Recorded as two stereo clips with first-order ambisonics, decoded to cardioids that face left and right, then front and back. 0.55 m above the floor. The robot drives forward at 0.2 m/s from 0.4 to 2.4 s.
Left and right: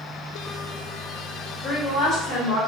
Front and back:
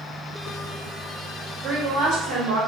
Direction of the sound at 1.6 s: 160° left.